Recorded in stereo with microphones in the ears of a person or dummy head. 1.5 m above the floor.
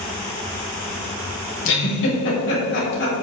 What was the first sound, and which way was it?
A giggle, 60° left (ahead or behind).